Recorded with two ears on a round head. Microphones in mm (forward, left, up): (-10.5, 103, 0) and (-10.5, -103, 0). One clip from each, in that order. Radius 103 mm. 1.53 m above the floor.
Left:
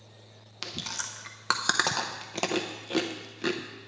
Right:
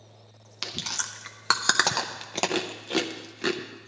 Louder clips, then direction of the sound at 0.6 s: Right 4 dB; 15° right (ahead or behind).